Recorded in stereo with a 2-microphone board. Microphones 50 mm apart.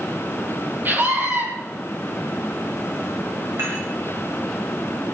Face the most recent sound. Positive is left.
turn(degrees=-60)  # may be behind; listen again after turning